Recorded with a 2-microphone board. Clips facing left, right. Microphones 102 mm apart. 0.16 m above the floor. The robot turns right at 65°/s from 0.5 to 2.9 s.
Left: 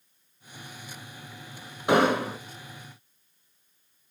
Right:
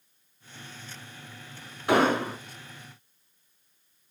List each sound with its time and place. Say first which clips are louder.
1.9 s an explosion: left 1 dB; 150° left, 1.1 m; by 2.4 s straight behind, 1.1 m